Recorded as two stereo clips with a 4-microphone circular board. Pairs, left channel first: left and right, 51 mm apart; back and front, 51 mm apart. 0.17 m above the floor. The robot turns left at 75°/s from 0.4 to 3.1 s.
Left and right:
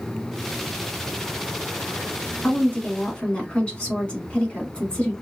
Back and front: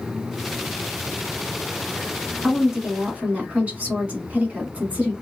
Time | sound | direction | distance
2.4 | a woman speaking | 85° left | 1.5 m